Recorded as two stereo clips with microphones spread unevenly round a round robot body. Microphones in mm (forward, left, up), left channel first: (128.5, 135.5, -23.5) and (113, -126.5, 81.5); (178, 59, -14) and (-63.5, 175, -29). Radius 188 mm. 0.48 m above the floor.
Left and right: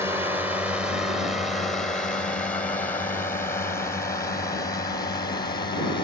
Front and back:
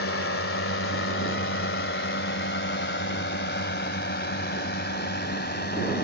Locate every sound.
0.0 s a drone: straight ahead; by 6.0 s 25° left